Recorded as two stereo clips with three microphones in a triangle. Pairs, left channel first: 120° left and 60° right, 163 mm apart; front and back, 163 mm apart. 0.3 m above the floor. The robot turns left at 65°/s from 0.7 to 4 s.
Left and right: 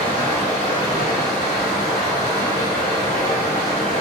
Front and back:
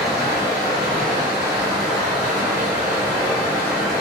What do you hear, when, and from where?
0.0 s running water: 65° right, 1.6 m; by 4.0 s 85° left, 1.6 m